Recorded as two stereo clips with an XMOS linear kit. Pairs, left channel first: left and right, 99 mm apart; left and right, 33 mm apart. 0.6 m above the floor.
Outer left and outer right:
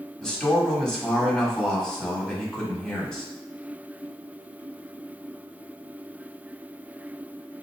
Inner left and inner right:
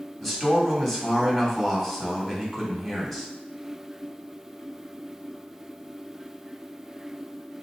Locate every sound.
0.2 s a man speaking: 10° left (ahead or behind), 1.4 m